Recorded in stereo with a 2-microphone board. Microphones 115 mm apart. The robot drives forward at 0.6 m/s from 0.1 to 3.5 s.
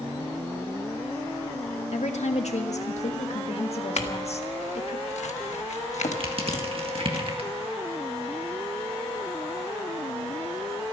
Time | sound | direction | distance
1.9 | a woman speaking | 80° left | 1.6 m
4.0 | a clink | 85° left | 1.4 m
6.2 | crushing | 55° right (ahead or behind) | 1.7 m